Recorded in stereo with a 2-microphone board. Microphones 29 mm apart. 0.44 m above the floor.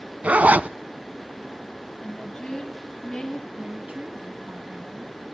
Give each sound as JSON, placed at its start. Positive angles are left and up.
{"t": 0.2, "sound": "a zipper", "side_deg": -70, "distance_m": 0.6}
{"t": 2.0, "sound": "a woman speaking", "side_deg": 15, "distance_m": 7.5}
{"t": 3.6, "sound": "a woman speaking", "side_deg": -60, "distance_m": 4.0}